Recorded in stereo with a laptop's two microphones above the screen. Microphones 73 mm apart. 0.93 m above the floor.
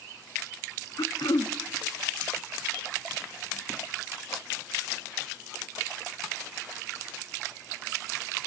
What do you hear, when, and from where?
1.0 s throat clearing: 65° left (ahead or behind), 0.5 m